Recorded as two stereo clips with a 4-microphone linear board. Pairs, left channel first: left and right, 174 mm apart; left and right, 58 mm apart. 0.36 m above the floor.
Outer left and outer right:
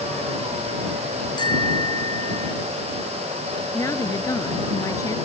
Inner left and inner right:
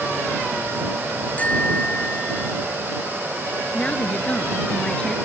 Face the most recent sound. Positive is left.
turn(degrees=15)  # may be behind; listen again after turning